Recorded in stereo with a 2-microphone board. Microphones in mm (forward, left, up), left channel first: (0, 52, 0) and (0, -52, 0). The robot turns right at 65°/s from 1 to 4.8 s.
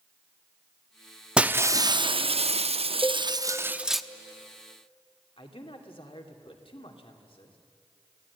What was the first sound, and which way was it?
Breaking glass, 170° right.